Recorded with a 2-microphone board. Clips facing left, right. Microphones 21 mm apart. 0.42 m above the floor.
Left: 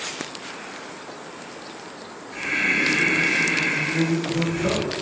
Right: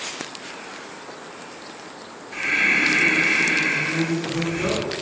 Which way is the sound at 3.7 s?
20° right (ahead or behind).